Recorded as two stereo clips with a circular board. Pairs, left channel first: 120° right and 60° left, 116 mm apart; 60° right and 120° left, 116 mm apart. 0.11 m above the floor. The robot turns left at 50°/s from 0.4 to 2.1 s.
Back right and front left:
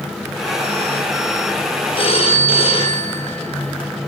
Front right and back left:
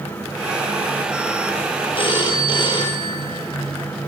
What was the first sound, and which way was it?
A phone ringing, 90° right.